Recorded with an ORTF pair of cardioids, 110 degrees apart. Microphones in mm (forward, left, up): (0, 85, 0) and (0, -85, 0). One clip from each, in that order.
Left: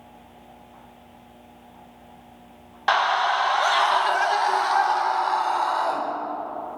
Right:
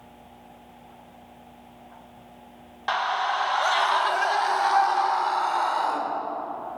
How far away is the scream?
About 1.0 m.